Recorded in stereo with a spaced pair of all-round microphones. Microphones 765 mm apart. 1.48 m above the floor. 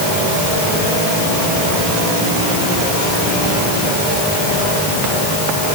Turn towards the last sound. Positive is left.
No sound to turn to.